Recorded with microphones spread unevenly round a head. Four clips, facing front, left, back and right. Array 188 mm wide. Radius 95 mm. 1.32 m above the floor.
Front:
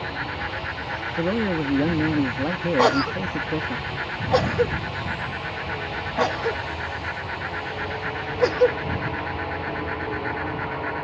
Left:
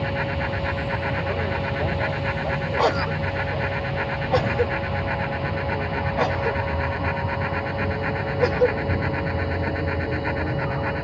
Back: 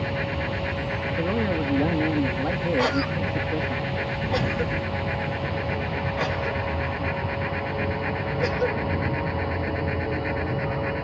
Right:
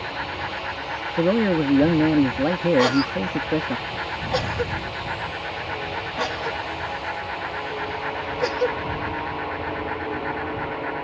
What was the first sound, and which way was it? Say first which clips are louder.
A fan: left 4 dB, back 2 dB; 130° left.